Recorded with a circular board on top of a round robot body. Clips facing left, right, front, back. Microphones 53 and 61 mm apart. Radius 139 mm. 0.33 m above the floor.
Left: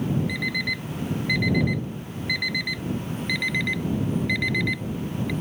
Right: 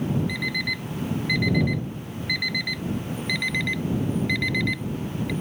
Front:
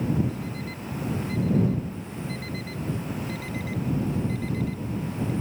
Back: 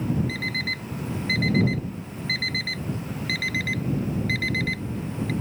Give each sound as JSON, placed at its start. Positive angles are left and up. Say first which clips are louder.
{"t": 0.3, "sound": "an alarm clock", "louder": "left 1 dB, back 5 dB", "azimuth_deg": 175}